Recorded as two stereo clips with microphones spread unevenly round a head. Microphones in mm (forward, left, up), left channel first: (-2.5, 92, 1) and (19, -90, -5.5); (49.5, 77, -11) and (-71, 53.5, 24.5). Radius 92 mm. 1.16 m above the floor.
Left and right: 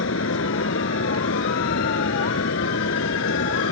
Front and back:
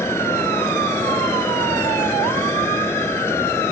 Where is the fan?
80° left.